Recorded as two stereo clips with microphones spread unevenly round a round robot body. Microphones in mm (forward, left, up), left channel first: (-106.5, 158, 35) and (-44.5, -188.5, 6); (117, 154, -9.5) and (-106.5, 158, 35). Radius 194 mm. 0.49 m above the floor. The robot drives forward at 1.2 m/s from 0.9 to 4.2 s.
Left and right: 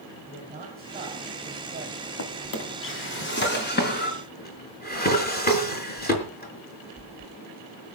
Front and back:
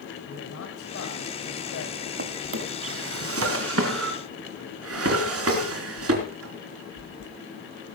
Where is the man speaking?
5° right, 4 m.